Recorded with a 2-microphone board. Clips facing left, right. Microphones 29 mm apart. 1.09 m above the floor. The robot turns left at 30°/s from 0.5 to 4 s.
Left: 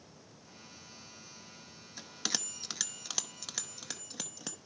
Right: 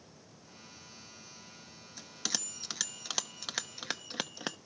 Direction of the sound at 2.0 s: 20° left (ahead or behind).